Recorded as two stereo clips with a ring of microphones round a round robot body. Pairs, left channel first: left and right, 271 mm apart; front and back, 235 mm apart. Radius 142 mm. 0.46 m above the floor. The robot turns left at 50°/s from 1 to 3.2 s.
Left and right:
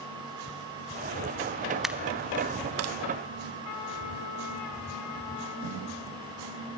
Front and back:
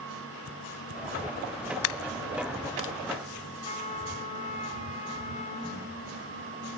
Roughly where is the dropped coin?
Ahead.